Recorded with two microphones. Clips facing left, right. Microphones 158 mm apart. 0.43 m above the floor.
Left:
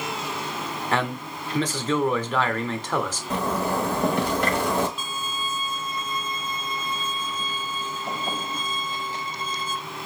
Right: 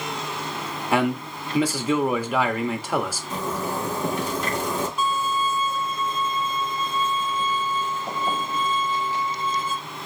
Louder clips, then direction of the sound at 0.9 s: Right 5 dB; 10° right (ahead or behind).